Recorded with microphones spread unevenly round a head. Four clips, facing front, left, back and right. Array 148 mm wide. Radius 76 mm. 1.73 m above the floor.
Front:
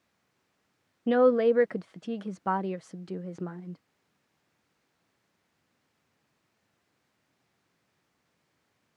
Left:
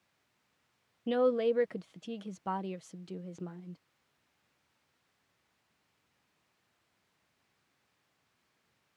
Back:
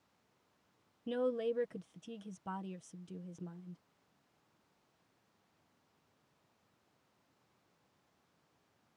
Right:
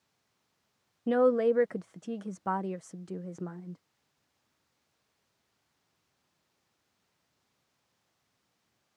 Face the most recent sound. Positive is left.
turn(degrees=-15)